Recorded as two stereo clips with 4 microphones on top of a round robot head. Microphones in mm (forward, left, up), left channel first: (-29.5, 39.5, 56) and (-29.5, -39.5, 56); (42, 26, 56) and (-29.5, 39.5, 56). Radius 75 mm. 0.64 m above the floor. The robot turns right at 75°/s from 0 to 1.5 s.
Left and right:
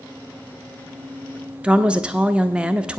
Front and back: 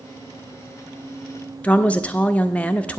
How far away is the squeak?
I don't hear a squeak.